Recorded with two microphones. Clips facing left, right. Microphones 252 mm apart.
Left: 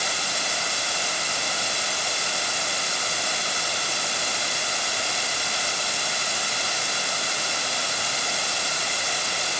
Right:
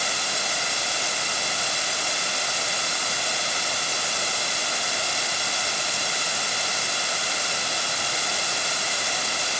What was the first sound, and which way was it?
Only background noise.